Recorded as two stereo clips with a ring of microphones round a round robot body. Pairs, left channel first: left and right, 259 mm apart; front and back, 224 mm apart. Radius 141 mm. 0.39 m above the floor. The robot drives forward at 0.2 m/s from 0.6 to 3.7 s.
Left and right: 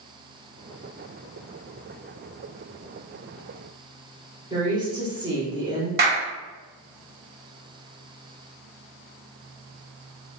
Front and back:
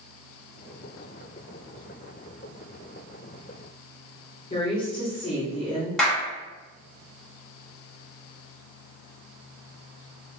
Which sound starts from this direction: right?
A clap, at 6.0 s.